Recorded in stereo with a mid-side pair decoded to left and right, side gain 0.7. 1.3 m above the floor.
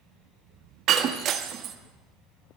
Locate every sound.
0.9 s breaking glass: 50° right, 1.4 m